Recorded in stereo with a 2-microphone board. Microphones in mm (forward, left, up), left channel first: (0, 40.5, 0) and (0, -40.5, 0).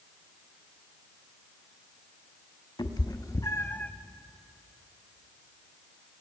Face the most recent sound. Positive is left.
turn(degrees=15)  # may be behind; listen again after turning